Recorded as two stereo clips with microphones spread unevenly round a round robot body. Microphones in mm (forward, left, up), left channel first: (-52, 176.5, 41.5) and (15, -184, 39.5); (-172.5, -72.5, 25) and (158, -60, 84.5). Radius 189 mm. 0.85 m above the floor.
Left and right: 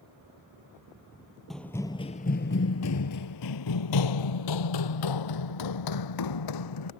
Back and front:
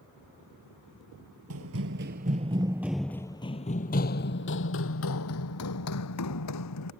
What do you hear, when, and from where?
1.5 s running footsteps: 10° left; by 6.9 s 130° left